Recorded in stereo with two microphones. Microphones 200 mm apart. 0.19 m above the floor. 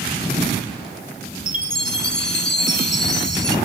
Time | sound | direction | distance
1.5 | a chime | 65° left (ahead or behind) | 1.0 m